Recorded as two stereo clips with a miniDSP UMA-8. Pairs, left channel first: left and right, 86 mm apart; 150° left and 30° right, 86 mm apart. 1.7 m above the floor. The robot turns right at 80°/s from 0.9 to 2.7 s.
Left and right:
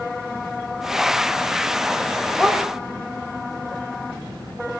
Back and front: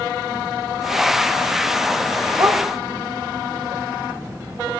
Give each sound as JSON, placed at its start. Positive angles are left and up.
{"t": 2.4, "sound": "a dog barking", "azimuth_deg": -5, "distance_m": 2.5}